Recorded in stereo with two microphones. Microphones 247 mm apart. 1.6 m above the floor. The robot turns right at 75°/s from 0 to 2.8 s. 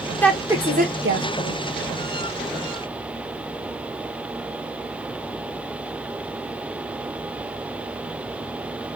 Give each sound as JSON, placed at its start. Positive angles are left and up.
{"t": 0.2, "sound": "a woman speaking", "side_deg": 10, "distance_m": 1.1}